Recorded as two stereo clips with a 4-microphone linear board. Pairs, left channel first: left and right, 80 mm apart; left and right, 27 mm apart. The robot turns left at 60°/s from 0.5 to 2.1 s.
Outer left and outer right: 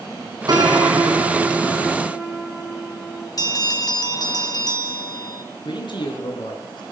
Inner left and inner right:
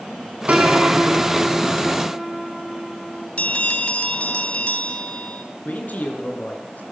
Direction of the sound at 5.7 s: 75° left (ahead or behind).